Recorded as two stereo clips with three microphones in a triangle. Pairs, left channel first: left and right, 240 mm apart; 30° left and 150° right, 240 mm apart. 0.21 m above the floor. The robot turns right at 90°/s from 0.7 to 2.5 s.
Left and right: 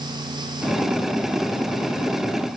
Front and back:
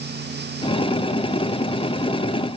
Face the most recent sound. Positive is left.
No sound to turn to.